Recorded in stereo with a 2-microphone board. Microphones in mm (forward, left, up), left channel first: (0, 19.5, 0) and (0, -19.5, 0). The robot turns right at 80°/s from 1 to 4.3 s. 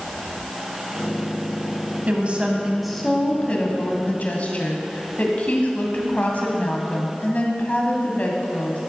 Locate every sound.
2.1 s a woman speaking: 65° right, 1.9 m; by 8.8 s 115° left, 1.9 m